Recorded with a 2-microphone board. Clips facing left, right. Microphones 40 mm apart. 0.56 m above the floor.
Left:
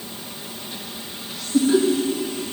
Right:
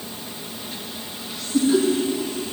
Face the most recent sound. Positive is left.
turn(degrees=20)  # may be behind; listen again after turning